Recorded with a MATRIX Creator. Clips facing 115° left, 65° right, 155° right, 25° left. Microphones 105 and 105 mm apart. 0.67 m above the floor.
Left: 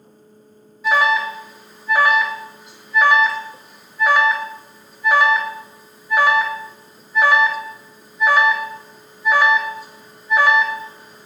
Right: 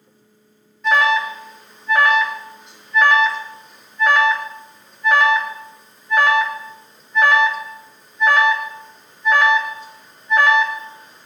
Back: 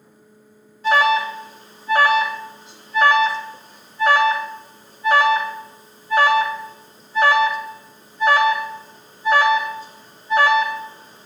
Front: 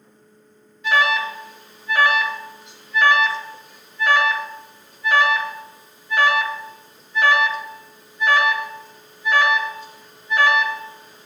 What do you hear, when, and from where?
0.8 s an alarm: 165° right, 2 m